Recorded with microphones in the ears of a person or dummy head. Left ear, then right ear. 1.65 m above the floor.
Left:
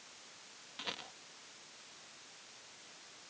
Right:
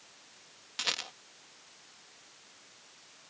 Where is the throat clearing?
I don't hear throat clearing.